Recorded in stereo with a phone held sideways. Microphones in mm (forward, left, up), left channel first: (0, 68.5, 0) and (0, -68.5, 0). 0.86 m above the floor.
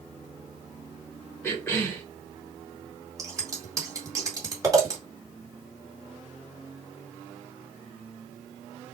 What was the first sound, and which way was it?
A cough, 10° left (ahead or behind).